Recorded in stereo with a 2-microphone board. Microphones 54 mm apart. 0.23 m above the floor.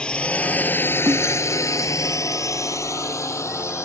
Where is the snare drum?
80° right.